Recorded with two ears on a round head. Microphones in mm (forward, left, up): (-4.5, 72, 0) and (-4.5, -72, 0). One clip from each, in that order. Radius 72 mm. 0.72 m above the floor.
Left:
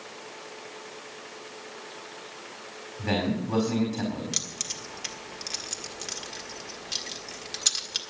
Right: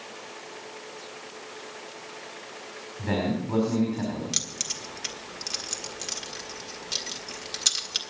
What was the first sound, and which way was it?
A man speaking, 75° left (ahead or behind).